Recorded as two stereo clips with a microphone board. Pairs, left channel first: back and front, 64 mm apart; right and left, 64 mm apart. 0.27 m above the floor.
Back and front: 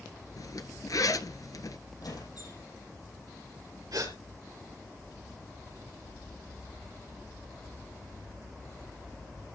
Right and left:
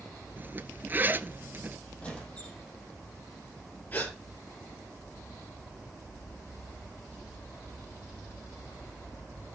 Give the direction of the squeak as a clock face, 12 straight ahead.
5 o'clock.